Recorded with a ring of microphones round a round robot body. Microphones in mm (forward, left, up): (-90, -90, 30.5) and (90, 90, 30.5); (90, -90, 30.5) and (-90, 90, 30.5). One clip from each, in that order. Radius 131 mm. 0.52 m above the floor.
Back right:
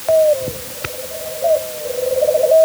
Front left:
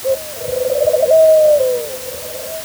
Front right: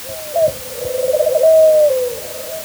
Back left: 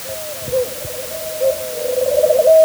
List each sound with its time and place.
Only background noise.